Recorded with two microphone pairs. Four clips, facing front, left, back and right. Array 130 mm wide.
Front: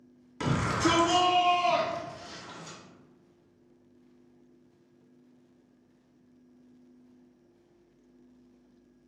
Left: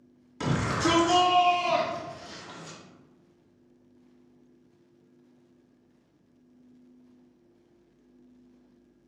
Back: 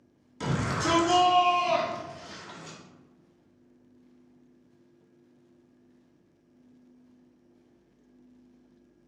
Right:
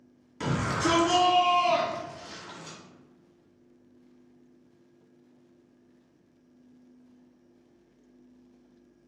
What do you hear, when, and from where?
0.4 s a shout: 10° left, 1.7 m; by 2.8 s 125° right, 1.7 m